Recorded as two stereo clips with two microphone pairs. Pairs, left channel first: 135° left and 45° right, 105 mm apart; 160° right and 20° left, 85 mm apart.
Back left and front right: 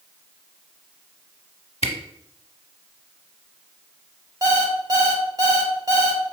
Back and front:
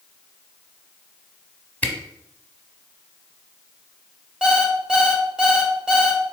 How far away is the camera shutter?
About 0.7 m.